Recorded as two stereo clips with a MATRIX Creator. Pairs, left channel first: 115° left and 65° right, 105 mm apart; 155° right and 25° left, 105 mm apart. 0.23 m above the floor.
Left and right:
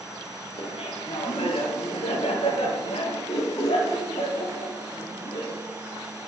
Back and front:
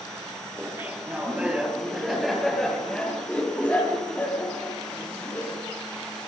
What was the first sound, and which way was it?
Laughter, 85° left.